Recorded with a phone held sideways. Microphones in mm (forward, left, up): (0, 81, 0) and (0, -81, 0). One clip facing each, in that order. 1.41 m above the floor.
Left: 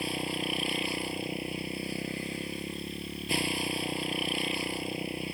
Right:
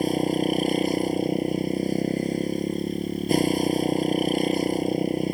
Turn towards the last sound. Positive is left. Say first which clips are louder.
# right 12 dB
turn(degrees=-40)  # may be behind; listen again after turning